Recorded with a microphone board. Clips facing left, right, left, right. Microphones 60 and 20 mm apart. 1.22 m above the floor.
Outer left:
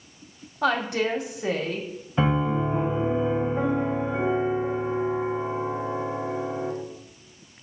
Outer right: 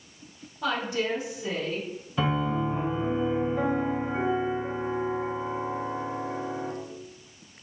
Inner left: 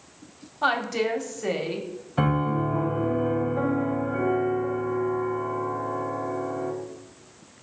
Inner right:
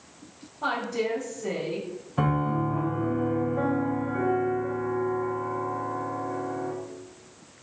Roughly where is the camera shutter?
No camera shutter in this recording.